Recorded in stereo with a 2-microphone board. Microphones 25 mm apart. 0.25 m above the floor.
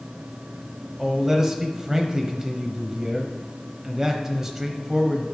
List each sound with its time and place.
1.0 s a man speaking: 20° right (ahead or behind), 0.9 m